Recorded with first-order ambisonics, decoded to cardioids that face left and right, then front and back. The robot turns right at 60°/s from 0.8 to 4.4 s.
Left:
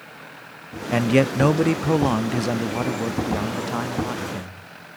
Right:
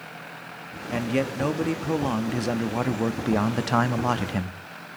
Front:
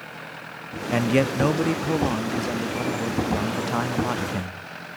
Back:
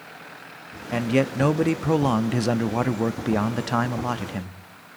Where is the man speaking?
70° left, 0.5 m; by 4.5 s 85° right, 0.5 m.